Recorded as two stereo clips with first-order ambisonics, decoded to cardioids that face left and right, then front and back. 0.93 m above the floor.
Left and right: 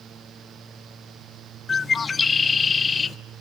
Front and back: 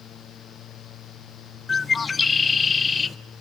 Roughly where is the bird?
Ahead left.